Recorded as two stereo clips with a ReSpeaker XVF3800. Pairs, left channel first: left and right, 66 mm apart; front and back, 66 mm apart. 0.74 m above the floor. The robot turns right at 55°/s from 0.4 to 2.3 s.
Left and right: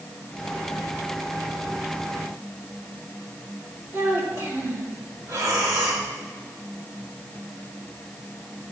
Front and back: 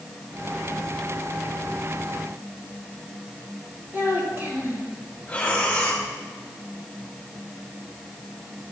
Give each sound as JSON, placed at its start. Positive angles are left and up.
{"t": 3.9, "sound": "a child speaking", "azimuth_deg": -135, "distance_m": 3.0}
{"t": 5.3, "sound": "breathing", "azimuth_deg": -70, "distance_m": 2.0}